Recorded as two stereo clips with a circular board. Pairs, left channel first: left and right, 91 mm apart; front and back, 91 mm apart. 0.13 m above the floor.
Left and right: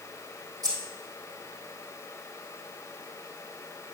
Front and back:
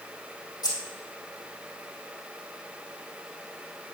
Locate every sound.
0.6 s keys jangling: 45° right, 3 m